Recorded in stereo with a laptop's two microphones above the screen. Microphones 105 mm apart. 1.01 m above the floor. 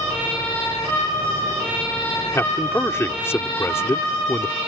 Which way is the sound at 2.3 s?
25° left (ahead or behind).